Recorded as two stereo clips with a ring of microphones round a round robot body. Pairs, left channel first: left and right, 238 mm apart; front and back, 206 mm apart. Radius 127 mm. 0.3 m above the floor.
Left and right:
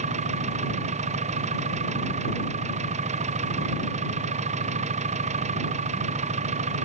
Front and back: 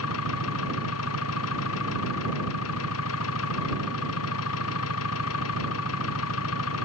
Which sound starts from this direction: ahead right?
An engine running, at 0.0 s.